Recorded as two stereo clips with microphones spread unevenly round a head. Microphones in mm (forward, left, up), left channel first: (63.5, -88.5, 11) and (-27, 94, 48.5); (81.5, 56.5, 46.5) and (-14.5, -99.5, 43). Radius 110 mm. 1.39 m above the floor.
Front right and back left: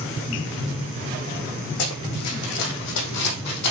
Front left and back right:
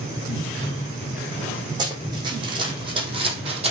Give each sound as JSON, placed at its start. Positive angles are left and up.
{"t": 1.8, "sound": "running footsteps", "azimuth_deg": -55, "distance_m": 4.0}